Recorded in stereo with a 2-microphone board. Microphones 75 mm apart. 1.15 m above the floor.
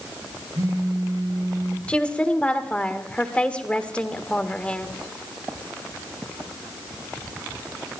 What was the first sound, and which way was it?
A phone buzzing, 60° right (ahead or behind).